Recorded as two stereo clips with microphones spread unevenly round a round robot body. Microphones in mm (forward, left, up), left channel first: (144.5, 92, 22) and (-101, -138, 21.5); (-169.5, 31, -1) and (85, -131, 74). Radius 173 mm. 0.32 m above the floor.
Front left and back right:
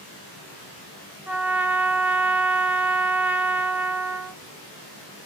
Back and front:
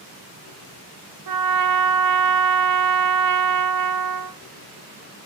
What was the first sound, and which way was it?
A trumpet, 50° right.